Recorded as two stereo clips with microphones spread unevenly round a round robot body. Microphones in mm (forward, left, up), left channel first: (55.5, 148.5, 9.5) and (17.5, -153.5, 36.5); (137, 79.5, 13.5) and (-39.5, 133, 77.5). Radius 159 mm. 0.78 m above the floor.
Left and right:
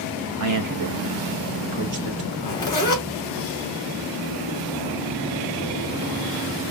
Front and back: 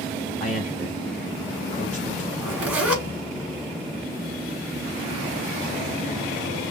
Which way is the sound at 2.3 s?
160° left.